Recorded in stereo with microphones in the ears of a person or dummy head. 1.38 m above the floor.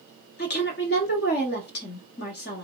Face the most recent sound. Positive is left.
turn(degrees=55)  # may be behind; listen again after turning